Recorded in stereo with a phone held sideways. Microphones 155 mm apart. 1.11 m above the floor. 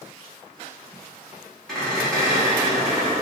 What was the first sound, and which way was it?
A squeak, 5° left (ahead or behind).